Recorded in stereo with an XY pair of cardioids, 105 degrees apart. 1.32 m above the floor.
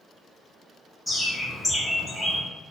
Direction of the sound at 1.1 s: Straight ahead.